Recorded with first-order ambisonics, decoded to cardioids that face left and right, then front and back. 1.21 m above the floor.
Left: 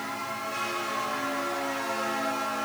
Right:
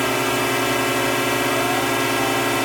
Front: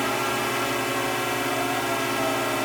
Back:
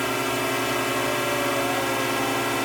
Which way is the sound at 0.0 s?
95° right.